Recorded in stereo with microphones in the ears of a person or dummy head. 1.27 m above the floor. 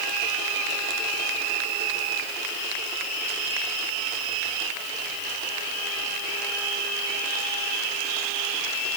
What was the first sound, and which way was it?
Only background noise.